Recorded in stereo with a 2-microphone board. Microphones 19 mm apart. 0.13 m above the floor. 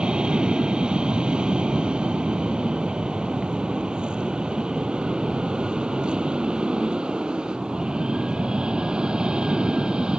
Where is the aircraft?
65° right (ahead or behind); by 10.2 s 60° right (ahead or behind).